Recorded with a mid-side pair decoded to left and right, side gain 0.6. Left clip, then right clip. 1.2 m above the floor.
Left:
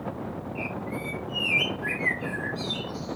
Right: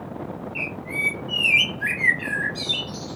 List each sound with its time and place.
0.6 s a bird: 70° right, 0.9 m